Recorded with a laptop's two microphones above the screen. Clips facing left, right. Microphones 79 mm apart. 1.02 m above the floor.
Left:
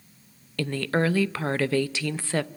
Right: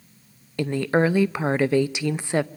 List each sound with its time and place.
0.6 s a woman speaking: 20° right (ahead or behind), 0.6 m